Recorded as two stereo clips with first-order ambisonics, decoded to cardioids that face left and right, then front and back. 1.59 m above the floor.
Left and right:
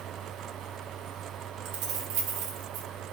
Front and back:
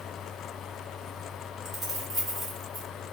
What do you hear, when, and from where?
1.6 s keys jangling: 95° right, 1.2 m